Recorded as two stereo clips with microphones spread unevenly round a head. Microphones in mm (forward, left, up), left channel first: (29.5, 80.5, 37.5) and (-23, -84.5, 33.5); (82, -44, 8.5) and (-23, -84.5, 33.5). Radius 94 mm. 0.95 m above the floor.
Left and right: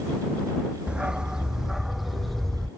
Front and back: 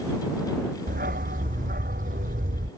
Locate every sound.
0.9 s a dog barking: 165° left; by 2.7 s 160° left